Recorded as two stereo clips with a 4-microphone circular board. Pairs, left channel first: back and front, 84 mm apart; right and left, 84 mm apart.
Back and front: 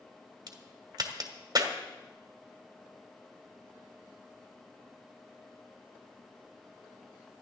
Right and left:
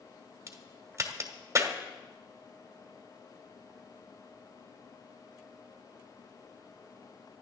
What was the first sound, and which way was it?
A crack, 40° left.